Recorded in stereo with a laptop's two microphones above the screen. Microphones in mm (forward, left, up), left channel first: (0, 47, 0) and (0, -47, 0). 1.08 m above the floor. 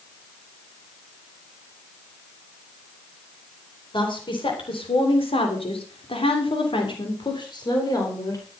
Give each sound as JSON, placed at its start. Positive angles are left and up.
{"t": 3.9, "sound": "a woman speaking", "side_deg": 60, "distance_m": 4.0}